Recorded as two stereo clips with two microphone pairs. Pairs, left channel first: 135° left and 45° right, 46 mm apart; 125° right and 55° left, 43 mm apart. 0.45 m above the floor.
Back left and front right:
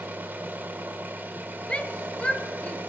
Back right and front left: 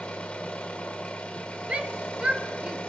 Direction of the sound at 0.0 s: 70° right.